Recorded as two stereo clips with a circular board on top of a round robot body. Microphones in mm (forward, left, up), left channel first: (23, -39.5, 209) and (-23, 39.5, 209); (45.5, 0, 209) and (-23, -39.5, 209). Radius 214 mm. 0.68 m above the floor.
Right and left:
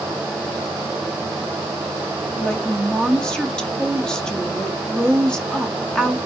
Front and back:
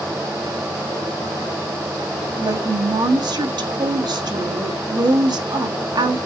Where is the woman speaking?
140° right, 1.8 m.